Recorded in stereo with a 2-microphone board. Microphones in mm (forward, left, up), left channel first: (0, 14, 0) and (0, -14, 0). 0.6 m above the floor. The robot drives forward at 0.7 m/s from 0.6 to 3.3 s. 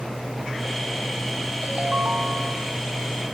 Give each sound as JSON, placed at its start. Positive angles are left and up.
{"t": 1.6, "sound": "a ringtone", "side_deg": -55, "distance_m": 1.2}